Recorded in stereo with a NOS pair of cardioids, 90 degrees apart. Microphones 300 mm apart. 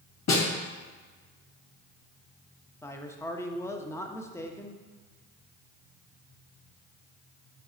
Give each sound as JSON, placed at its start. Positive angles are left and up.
{"t": 0.3, "sound": "a snare drum", "azimuth_deg": 60, "distance_m": 2.5}
{"t": 2.8, "sound": "a man speaking", "azimuth_deg": 10, "distance_m": 1.0}